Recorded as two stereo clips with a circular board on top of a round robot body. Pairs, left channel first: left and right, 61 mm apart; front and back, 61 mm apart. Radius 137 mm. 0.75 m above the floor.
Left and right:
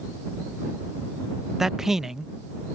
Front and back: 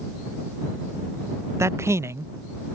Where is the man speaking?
170° right.